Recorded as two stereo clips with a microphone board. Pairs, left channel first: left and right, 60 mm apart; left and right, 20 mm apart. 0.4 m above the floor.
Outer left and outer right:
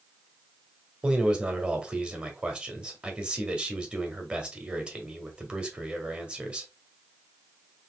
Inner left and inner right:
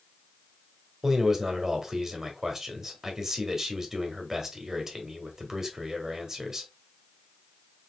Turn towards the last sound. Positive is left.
turn(degrees=-20)  # may be behind; listen again after turning